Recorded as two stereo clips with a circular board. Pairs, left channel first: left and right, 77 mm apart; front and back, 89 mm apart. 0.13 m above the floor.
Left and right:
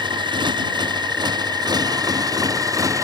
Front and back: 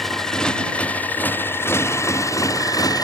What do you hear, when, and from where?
0.0 s a motorcycle: 90° right; by 3.0 s 45° right